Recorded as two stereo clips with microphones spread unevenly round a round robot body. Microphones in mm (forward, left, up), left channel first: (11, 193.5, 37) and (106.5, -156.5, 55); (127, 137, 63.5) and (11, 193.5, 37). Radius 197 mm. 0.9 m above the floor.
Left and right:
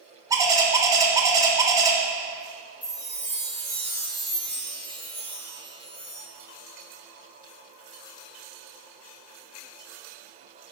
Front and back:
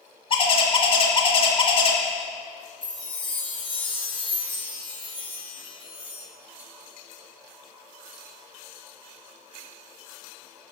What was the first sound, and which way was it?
A bird, 5° left.